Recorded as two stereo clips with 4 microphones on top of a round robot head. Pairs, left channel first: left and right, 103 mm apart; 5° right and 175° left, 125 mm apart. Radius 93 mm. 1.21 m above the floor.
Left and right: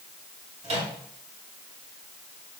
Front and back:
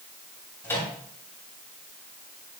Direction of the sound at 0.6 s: 75° right.